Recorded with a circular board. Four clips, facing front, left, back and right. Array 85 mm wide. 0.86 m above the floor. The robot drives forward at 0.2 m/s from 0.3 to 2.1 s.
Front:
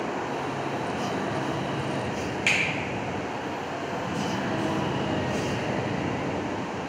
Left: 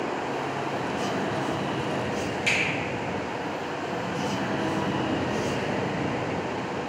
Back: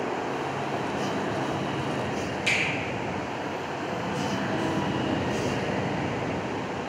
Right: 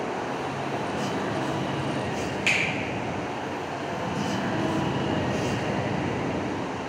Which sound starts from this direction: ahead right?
A finger snap, at 2.5 s.